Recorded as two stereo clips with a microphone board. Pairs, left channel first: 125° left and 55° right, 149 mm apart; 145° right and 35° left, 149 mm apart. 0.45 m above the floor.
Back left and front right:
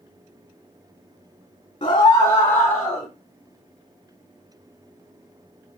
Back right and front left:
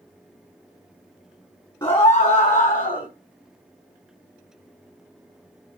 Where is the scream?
165° left, 1.5 m; by 3.1 s 145° right, 2.5 m.